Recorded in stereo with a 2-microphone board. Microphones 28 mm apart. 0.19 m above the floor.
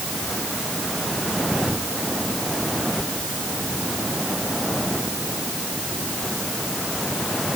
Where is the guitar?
I don't hear a guitar.